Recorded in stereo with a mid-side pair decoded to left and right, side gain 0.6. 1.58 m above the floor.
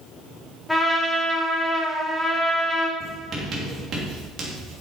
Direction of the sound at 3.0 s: 45° right.